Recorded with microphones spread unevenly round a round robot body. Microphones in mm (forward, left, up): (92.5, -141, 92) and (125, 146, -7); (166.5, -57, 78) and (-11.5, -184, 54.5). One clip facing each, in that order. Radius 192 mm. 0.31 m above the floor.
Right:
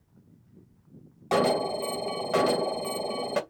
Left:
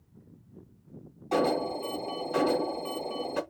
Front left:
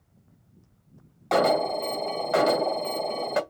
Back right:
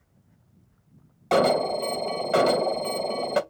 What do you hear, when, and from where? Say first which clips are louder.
1.3 s an alarm: right 2 dB, back right 2 dB; 100° right, 2.5 m